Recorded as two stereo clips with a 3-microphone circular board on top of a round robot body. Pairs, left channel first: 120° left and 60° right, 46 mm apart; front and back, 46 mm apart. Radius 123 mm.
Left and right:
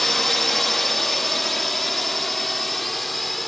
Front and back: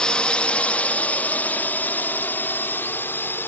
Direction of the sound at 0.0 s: 40° left.